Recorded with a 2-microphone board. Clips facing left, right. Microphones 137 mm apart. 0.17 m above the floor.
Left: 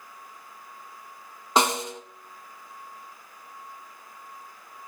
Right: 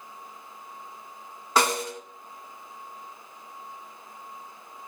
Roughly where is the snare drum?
Left.